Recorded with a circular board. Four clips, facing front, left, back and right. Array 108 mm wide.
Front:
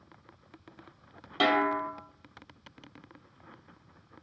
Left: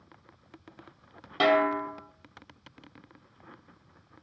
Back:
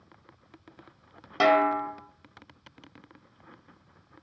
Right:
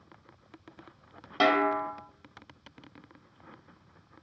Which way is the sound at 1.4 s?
165° right.